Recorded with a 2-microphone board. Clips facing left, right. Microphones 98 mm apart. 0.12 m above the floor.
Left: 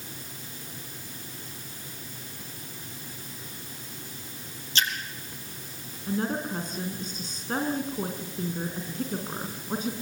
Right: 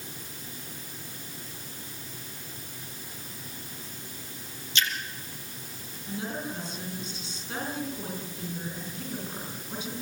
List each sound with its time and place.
4.8 s a splash: 35° left (ahead or behind), 3.5 m
6.1 s a woman speaking: 40° left (ahead or behind), 6 m